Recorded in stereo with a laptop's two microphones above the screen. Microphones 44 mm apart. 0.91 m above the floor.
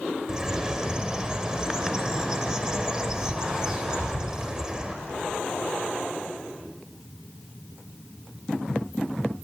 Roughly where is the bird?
Centre.